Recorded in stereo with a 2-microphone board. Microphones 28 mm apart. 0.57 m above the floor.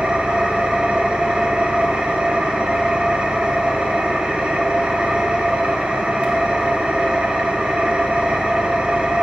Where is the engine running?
45° right (ahead or behind), 1.0 m.